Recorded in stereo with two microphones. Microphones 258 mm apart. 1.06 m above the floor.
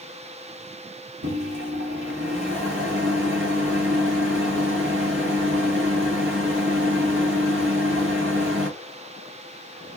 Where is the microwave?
55° right (ahead or behind), 1.1 m.